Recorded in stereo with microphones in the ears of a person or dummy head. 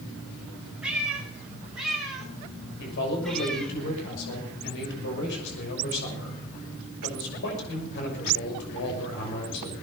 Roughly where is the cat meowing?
Centre.